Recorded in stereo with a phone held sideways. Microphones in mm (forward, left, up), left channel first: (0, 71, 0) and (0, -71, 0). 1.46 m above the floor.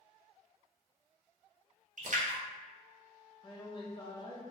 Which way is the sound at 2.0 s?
65° right (ahead or behind).